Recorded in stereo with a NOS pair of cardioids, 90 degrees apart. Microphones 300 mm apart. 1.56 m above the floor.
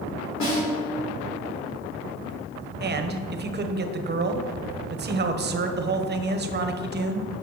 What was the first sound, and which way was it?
A snare drum, 70° left.